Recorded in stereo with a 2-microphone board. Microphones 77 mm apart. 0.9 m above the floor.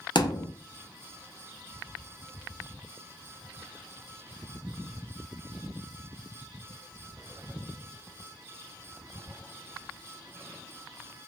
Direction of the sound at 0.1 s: 75° left (ahead or behind).